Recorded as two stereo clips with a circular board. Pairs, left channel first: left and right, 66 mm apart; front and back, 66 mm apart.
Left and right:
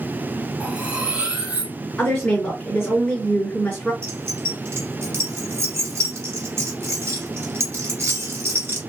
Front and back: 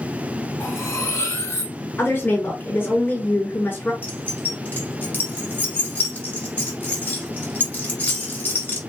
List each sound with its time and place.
0.6 s cutlery clinking: 25° right, 0.9 m
2.0 s a woman speaking: 20° left, 1.9 m
4.0 s keys jangling: 55° right, 1.2 m